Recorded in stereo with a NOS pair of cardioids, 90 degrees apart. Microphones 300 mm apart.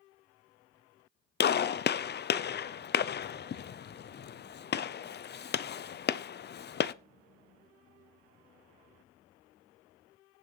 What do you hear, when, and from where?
1.4 s a gunshot: 35° left, 0.6 m